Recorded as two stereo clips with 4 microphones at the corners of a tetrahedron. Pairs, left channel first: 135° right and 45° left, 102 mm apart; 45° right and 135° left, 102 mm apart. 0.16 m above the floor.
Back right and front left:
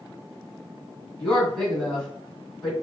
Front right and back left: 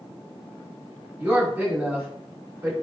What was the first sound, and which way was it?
A woman speaking, 150° left.